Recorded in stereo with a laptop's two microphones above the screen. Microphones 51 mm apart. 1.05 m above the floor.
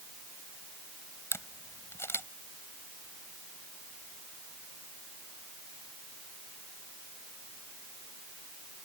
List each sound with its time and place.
1.3 s a camera shutter: 50° left (ahead or behind)